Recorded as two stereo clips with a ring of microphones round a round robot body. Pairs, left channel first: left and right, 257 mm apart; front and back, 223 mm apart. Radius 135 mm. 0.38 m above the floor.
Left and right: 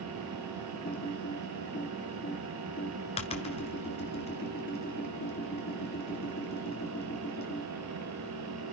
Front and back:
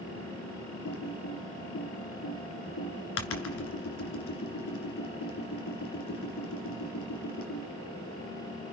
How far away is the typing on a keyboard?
About 2 m.